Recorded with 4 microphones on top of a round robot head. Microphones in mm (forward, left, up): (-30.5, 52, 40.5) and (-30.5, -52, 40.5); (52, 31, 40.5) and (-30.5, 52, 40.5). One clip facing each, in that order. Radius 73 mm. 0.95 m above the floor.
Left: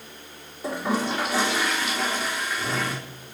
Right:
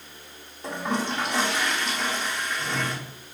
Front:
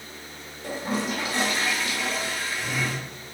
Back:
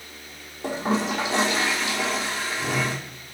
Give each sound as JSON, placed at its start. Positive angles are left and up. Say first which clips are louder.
{"t": 0.6, "sound": "a toilet flushing", "louder": "left 2 dB, back 4 dB", "azimuth_deg": 175, "distance_m": 3.0}